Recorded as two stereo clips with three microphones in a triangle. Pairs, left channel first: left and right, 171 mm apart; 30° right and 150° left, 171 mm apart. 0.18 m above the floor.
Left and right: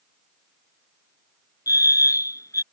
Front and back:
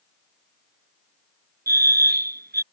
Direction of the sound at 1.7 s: 160° left.